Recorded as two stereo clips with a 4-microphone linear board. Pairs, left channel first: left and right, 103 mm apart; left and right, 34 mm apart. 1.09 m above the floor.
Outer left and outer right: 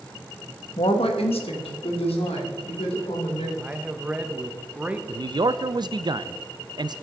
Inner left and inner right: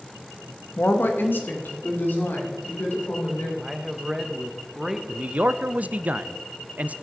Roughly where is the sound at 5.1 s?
Right.